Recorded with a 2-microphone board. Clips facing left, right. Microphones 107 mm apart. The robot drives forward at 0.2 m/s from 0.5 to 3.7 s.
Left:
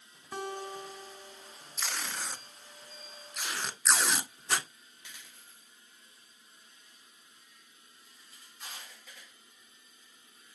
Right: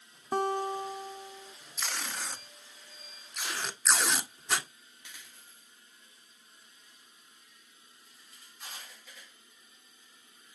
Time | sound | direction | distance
0.3 | a guitar | 45° right (ahead or behind) | 0.5 m
1.8 | tape being pulled | centre (ahead or behind) | 1.0 m